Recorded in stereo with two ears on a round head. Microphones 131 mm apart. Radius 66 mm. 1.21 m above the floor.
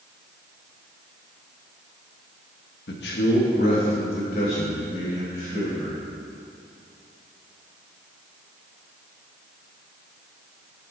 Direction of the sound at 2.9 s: 80° left.